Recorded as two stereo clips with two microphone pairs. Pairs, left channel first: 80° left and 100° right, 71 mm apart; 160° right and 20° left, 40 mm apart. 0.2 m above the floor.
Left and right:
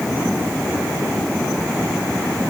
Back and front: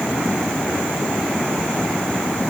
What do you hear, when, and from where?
Only background noise.